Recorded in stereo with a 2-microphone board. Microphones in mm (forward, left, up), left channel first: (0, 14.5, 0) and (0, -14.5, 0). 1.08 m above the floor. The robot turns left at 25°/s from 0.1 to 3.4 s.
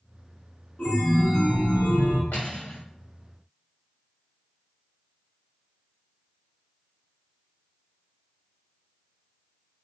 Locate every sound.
0.8 s a chime: 130° left, 0.9 m; by 2.2 s 95° left, 0.9 m
2.3 s cutlery clinking: 80° left, 1.3 m; by 2.8 s 85° left, 1.3 m